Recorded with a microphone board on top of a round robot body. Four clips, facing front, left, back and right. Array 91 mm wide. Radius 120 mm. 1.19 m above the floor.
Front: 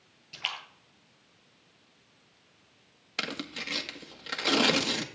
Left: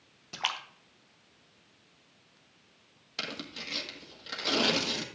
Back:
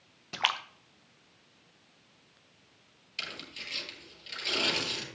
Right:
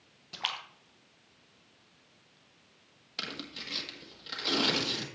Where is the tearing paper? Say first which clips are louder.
Left 2 dB, front 7 dB; 10° left, 1.4 m.